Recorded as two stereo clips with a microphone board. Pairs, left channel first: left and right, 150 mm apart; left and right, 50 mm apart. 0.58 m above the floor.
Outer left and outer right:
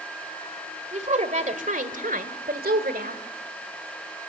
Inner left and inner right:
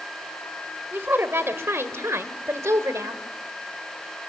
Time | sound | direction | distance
0.9 | a woman speaking | 45° right (ahead or behind) | 2 m